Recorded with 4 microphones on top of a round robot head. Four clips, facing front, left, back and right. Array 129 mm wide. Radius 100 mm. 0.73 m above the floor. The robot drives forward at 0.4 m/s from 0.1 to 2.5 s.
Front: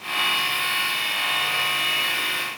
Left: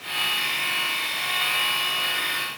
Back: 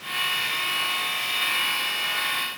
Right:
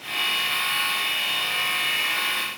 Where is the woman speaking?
No woman speaking in this recording.